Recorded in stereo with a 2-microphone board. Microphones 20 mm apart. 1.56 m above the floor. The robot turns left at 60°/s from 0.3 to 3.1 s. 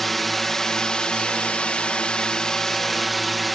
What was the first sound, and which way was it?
A drone, 170° left.